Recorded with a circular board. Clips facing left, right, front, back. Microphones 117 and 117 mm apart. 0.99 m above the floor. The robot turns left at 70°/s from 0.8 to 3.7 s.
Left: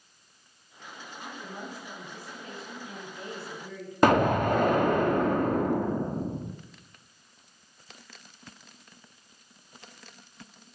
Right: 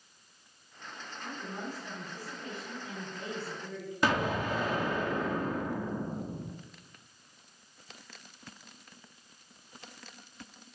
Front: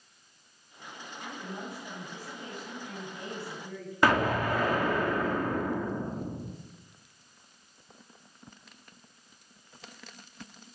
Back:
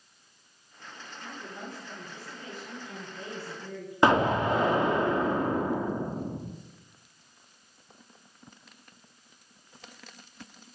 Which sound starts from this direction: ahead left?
A woman speaking, at 1.2 s.